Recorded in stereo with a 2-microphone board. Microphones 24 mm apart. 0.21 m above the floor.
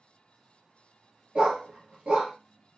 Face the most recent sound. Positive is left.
turn(degrees=-40)  # may be behind; listen again after turning